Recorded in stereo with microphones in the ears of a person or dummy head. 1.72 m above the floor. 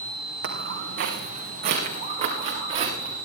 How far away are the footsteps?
About 4.5 m.